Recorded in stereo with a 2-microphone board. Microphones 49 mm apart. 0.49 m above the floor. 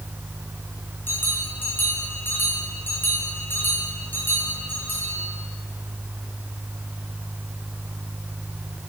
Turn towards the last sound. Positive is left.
turn(degrees=45)  # may be behind; listen again after turning